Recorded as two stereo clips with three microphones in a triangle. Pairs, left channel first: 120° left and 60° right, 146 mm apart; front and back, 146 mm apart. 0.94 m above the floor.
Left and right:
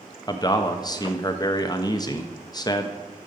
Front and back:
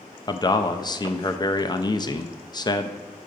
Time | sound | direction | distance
0.3 | a man speaking | 60° left | 0.5 m